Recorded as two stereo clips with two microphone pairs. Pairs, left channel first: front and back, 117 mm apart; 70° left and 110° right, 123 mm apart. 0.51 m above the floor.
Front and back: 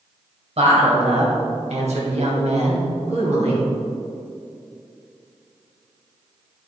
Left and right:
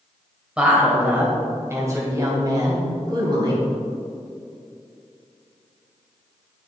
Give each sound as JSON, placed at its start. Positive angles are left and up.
{"t": 0.6, "sound": "a woman speaking", "azimuth_deg": 165, "distance_m": 2.0}